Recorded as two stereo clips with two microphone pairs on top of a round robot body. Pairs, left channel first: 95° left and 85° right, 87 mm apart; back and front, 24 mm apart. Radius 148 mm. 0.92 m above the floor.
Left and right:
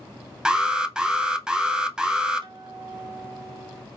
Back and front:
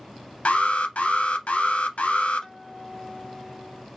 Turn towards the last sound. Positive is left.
turn(degrees=-115)